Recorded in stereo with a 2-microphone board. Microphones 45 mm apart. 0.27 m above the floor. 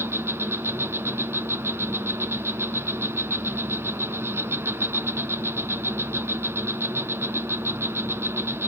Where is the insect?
70° right (ahead or behind), 1.0 m.